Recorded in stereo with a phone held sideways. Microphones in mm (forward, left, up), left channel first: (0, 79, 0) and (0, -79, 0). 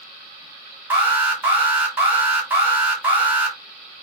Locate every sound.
0.9 s an alarm: 10° right (ahead or behind), 1.3 m